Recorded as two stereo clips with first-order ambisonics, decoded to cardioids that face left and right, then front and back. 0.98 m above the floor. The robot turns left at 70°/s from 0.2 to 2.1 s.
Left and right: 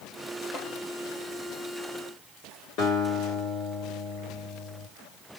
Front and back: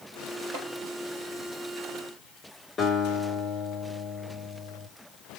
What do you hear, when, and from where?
0.5 s tapping: 160° left, 3 m; by 0.7 s 150° left, 3 m
2.8 s a guitar: 70° left, 3 m